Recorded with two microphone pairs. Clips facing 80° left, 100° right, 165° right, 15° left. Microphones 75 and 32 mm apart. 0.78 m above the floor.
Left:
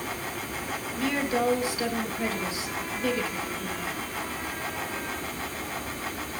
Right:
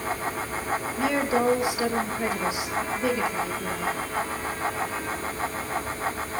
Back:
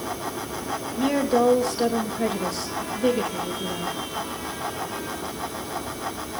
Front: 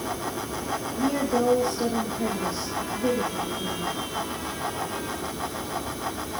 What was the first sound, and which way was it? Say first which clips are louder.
A woman speaking: right 2 dB, back 4 dB; 170° right.